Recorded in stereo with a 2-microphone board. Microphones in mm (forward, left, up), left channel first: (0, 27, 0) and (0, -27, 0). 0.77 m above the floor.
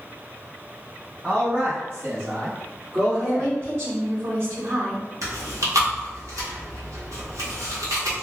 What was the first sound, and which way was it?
A man speaking, 30° right (ahead or behind).